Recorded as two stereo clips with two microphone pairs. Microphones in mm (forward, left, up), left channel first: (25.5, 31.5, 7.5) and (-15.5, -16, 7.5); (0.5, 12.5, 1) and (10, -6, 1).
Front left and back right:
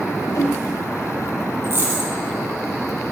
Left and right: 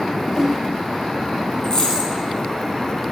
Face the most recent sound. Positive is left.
turn(degrees=175)